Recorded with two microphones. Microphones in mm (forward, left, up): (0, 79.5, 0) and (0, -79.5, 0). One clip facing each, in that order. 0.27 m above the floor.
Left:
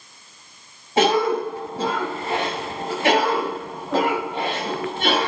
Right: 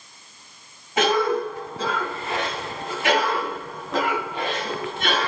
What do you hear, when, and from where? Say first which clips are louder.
1.0 s a cough: left 2 dB; 30° left (ahead or behind), 1.7 m